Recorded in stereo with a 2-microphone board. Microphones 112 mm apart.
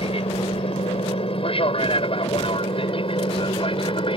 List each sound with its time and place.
0.0 s an aircraft: 55° left (ahead or behind); by 4.2 s 50° left (ahead or behind)